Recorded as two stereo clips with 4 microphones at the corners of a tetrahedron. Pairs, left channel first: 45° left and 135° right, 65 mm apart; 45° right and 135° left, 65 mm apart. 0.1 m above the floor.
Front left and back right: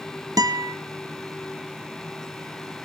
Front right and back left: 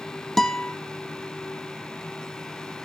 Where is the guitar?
130° right, 0.9 m.